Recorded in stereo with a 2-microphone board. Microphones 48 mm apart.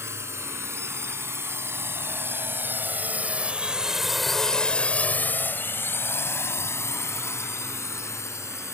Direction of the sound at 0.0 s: 65° right (ahead or behind).